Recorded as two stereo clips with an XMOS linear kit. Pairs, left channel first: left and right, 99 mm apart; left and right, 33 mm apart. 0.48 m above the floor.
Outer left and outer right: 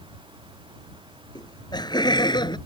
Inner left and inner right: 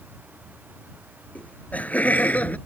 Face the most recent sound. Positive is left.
turn(degrees=50)  # may be behind; listen again after turning